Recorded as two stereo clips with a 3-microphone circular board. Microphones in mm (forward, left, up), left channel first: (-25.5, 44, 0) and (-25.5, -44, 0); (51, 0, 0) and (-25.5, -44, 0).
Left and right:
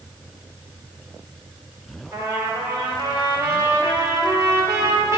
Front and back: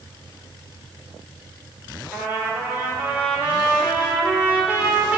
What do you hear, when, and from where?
2.1 s a trumpet: 85° right, 1.4 m